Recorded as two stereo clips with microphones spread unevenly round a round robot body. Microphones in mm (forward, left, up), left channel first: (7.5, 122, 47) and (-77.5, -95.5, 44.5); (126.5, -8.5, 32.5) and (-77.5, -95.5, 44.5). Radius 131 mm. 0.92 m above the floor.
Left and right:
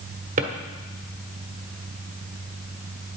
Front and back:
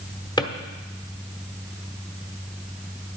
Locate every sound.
0.4 s a drawer: 50° right, 1.0 m